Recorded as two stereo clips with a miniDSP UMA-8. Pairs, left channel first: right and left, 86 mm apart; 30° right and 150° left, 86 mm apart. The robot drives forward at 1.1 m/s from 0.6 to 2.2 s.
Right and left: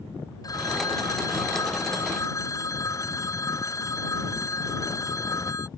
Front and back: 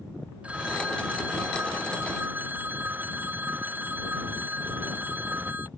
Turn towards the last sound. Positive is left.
turn(degrees=-140)